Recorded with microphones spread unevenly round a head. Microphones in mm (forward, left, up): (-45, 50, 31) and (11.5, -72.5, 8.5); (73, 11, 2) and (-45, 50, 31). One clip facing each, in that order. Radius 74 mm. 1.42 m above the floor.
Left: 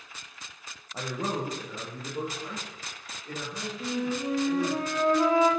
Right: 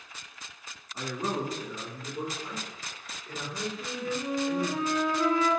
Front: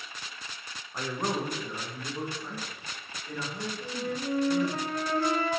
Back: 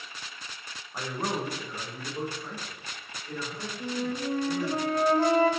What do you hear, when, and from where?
0.9 s a man speaking: 80° left, 1.0 m
3.8 s a flute: 150° left, 0.9 m